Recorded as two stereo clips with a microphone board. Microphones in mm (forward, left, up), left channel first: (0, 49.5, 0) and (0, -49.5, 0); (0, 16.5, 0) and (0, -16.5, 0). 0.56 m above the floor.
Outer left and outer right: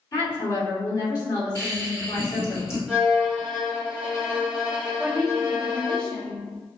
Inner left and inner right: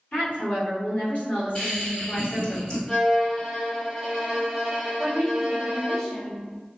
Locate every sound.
0.1 s a woman speaking: 45° left (ahead or behind), 1.8 m
1.6 s laughter: 25° left (ahead or behind), 1.5 m
2.9 s a violin: 10° right (ahead or behind), 1.1 m
5.0 s a woman speaking: 10° left (ahead or behind), 1.0 m